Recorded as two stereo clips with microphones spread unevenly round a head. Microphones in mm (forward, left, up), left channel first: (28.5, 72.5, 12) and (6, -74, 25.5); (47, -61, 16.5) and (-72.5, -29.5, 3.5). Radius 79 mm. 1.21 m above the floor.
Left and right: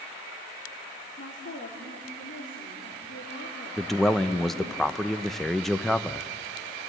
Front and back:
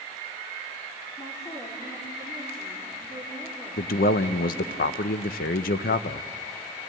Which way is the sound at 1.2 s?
60° left.